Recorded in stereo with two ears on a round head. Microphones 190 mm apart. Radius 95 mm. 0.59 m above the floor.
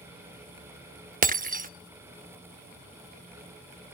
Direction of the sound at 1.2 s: 40° right (ahead or behind).